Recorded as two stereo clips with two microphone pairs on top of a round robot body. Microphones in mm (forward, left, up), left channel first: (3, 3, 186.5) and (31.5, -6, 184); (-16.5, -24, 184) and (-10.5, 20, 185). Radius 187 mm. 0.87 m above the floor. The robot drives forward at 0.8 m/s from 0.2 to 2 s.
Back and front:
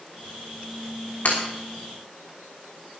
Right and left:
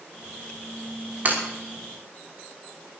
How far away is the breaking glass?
About 5.5 m.